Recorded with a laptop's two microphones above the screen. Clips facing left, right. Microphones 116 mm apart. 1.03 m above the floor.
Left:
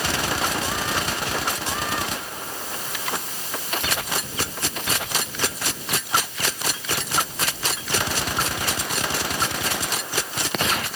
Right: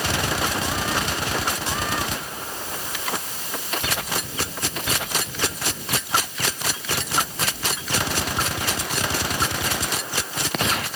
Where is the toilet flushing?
No toilet flushing in this recording.